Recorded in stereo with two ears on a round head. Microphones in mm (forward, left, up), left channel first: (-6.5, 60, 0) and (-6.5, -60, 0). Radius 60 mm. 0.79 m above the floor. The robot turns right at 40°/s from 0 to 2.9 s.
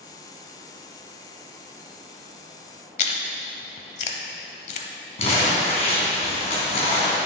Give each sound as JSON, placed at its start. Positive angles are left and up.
{"t": 3.0, "sound": "chewing", "side_deg": 50, "distance_m": 0.9}
{"t": 5.2, "sound": "crumpling", "side_deg": 50, "distance_m": 3.0}